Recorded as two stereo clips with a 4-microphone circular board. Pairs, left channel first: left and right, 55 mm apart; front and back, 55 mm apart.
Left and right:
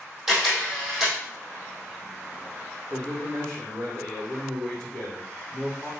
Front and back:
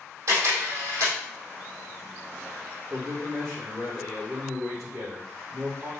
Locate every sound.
0.3 s a camera shutter: 175° right, 3.5 m
2.9 s a man speaking: 150° left, 4 m